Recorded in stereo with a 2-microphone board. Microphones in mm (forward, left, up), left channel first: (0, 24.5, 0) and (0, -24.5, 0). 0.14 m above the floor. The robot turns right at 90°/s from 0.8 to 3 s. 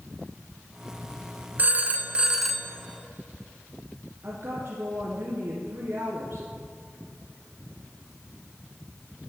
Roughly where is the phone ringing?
Right.